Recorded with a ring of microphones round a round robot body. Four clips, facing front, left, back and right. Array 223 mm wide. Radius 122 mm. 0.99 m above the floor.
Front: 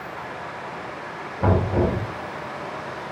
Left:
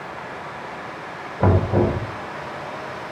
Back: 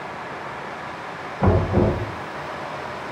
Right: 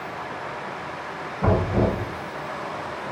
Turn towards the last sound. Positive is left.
turn(degrees=105)